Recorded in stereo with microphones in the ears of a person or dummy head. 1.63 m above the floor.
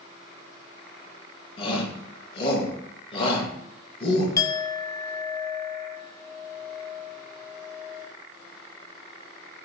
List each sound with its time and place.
1.6 s a shout: 30° left (ahead or behind), 2 m
4.4 s a clink: 20° left (ahead or behind), 0.7 m